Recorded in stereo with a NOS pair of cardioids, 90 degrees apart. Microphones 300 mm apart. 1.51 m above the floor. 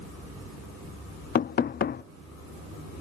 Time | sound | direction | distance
1.4 | knocking | 35° left | 0.5 m